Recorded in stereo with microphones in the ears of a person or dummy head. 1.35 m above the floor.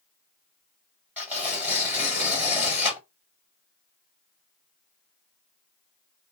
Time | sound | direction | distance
1.2 | tearing paper | 10° right (ahead or behind) | 1.7 m